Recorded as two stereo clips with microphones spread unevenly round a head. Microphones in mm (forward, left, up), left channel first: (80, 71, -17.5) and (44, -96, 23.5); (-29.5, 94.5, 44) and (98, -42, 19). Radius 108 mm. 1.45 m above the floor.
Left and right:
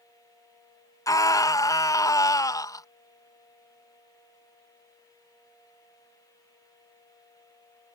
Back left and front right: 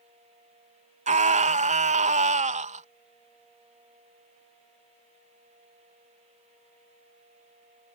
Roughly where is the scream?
Ahead.